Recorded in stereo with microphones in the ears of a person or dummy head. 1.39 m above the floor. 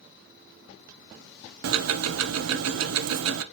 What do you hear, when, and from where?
1.6 s ticking: 75° right (ahead or behind), 0.5 m